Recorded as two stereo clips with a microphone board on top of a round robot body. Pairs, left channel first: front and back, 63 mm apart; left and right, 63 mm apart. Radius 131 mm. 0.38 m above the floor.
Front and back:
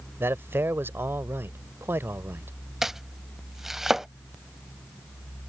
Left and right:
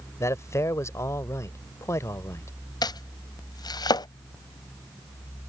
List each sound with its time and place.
0.2 s a man speaking: 130° left
2.8 s chopping: 95° left